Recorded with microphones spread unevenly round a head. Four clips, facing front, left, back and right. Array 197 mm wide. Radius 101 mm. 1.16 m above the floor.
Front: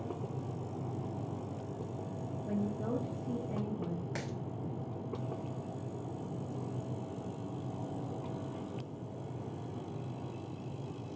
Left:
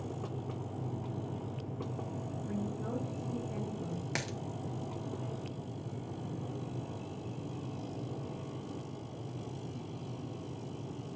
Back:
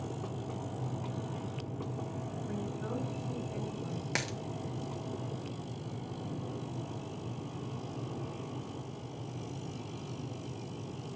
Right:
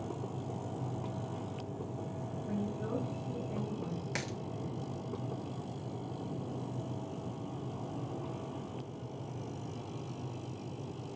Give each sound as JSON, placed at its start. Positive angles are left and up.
{"t": 2.5, "sound": "a woman speaking", "azimuth_deg": -15, "distance_m": 1.2}
{"t": 4.2, "sound": "a dropped coin", "azimuth_deg": 125, "distance_m": 0.6}